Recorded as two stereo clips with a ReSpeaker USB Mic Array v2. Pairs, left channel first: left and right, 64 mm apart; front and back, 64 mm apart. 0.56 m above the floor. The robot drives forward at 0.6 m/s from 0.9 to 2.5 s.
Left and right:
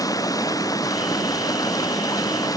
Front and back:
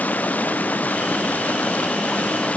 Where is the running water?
65° left; by 2.6 s 70° left.